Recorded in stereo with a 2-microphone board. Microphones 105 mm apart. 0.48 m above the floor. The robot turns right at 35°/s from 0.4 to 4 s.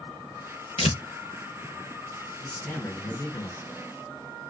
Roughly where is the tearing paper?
Left.